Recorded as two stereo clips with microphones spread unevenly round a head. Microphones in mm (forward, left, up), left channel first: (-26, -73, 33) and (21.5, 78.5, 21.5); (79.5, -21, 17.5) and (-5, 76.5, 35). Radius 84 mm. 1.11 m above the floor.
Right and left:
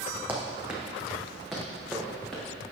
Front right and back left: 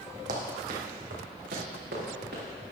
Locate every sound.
0.3 s running footsteps: 155° left, 2 m; by 2.4 s 165° left, 4.5 m